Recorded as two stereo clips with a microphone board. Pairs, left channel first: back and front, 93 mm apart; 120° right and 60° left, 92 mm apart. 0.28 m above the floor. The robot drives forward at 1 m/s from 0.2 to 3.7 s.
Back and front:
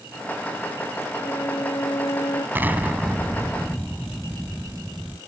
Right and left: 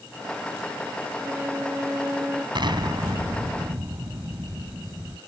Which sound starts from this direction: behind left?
A violin, at 1.2 s.